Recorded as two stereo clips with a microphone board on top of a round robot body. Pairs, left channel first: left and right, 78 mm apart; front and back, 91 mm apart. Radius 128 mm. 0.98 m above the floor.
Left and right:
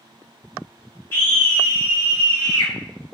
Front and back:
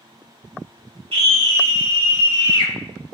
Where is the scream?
155° left, 5.5 m; by 2.7 s 135° left, 7 m.